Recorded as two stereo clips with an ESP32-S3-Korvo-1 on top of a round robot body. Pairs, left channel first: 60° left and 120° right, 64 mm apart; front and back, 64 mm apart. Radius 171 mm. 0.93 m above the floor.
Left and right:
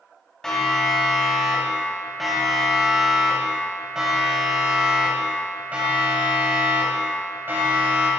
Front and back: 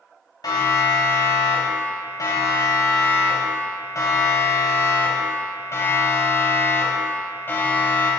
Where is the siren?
20° right, 6.5 m; by 8.1 s 65° right, 5.5 m.